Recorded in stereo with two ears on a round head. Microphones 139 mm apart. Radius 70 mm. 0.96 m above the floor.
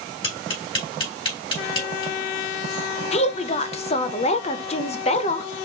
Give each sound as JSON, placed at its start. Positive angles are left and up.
{"t": 0.2, "sound": "tapping", "side_deg": 30, "distance_m": 3.5}
{"t": 3.1, "sound": "a woman speaking", "side_deg": 40, "distance_m": 0.6}